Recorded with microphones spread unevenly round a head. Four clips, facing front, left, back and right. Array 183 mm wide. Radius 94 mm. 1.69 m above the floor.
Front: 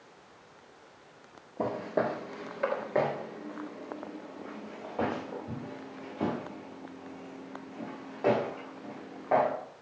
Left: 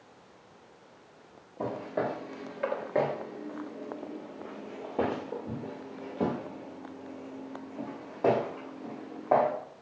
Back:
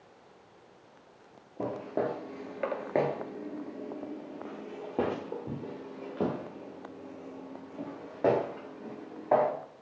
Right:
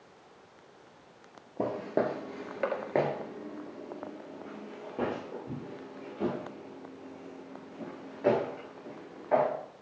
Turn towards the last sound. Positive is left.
turn(degrees=140)